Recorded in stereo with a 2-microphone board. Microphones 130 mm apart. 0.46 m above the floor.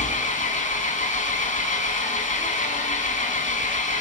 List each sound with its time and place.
0.0 s an engine running: 85° left, 1.6 m